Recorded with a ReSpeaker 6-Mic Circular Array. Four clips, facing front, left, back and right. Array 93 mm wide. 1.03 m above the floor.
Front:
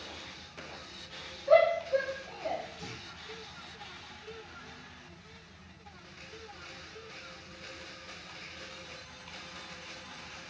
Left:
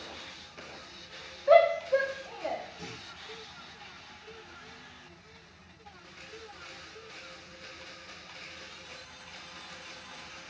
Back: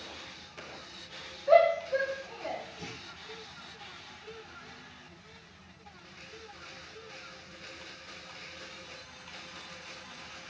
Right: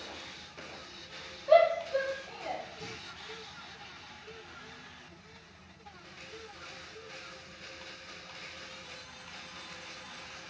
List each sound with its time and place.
1.5 s a shout: 100° left, 2 m; by 2.6 s 95° left, 2.5 m
2.8 s a clunk: 140° left, 3.5 m